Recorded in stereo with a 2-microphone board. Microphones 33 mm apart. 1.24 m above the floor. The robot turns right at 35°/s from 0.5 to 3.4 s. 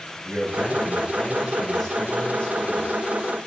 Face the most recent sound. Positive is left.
turn(degrees=60)